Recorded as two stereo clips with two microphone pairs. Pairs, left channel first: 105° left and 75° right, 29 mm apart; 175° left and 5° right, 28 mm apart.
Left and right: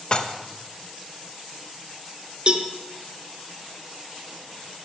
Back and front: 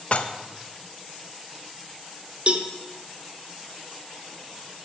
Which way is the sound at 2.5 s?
35° right.